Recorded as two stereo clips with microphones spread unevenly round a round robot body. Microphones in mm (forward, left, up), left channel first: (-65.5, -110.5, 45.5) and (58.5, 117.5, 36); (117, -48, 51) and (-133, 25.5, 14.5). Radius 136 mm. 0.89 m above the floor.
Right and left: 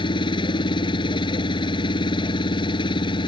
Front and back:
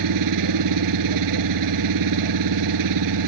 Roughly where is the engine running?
Behind.